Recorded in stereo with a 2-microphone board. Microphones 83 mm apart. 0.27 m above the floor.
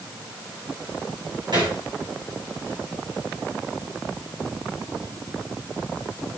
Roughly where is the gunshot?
Right.